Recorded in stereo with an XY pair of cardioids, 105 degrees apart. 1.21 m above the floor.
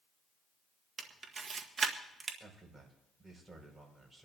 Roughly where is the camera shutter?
Ahead right.